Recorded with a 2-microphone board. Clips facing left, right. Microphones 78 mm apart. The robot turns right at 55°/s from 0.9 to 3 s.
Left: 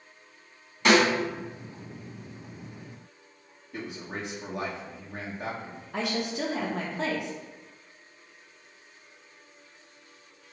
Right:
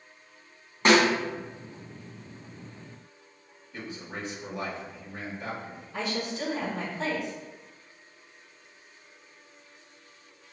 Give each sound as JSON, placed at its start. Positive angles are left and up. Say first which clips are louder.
{"t": 0.8, "sound": "a snare drum", "louder": "even", "side_deg": -35, "distance_m": 2.0}
{"t": 3.7, "sound": "a man speaking", "louder": "left 2 dB", "side_deg": 75, "distance_m": 1.7}
{"t": 5.9, "sound": "a woman speaking", "louder": "left 2 dB", "side_deg": 75, "distance_m": 1.3}